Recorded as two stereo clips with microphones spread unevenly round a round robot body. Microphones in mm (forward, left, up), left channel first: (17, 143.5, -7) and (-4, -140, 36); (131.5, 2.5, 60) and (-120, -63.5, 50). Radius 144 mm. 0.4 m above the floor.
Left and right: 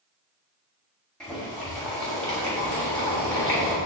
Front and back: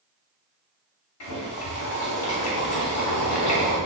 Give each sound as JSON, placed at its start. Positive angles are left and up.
{"t": 1.2, "sound": "boiling", "azimuth_deg": 5, "distance_m": 2.5}